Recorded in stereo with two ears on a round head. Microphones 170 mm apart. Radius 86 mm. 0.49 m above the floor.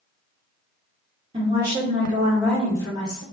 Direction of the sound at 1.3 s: 30° right (ahead or behind).